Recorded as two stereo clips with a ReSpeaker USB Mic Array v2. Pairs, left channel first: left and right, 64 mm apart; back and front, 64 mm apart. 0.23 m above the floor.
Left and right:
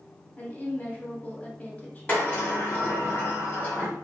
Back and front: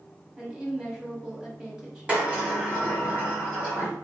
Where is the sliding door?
45° left, 1.5 m.